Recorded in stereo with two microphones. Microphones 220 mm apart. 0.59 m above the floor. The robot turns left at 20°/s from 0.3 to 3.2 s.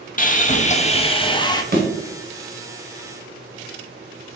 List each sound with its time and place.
0.2 s sawing: 40° left (ahead or behind), 0.6 m; by 1.6 s 20° left (ahead or behind), 0.6 m
1.7 s a thud: 45° right (ahead or behind), 1.2 m